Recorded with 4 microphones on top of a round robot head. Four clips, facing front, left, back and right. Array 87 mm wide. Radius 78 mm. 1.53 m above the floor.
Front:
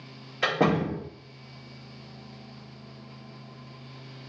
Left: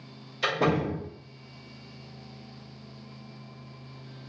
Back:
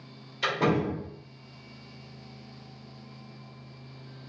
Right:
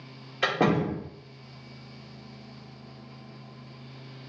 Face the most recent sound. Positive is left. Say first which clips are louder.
# right 1 dB, front 2 dB
turn(degrees=-45)